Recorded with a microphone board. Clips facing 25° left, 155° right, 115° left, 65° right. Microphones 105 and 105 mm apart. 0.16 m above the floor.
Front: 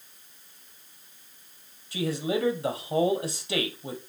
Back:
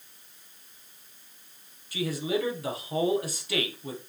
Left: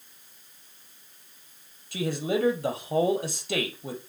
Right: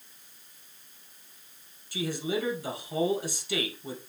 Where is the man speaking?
85° left, 4 m.